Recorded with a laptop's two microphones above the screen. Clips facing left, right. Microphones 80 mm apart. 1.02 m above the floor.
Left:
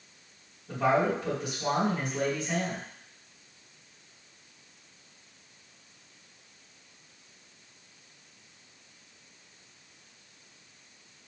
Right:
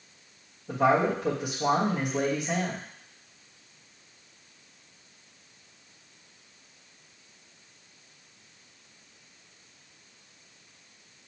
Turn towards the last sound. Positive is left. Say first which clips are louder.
# right 2 dB
turn(degrees=-65)  # may be behind; listen again after turning